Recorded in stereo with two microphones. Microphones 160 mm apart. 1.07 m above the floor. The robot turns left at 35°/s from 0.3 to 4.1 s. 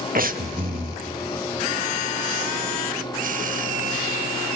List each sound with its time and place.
0.1 s breathing: 60° right (ahead or behind), 0.9 m; by 1.0 s 35° right (ahead or behind), 0.9 m